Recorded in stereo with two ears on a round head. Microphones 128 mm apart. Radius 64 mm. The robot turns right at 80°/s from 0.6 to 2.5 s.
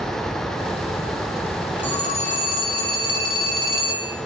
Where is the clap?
I don't hear a clap.